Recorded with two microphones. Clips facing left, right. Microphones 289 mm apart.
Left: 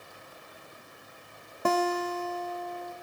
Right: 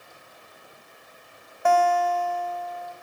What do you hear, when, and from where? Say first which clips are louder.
1.6 s a guitar: right 5 dB; 45° left (ahead or behind), 0.6 m